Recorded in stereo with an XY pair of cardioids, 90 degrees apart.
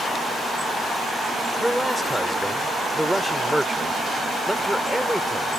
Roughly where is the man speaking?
Ahead.